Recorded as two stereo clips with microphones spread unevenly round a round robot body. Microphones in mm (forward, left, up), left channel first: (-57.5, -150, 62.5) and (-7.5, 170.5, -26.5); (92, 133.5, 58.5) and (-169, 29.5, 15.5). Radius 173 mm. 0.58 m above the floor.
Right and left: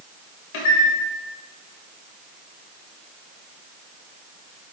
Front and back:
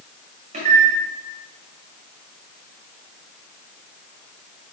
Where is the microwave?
90° right, 1.8 m.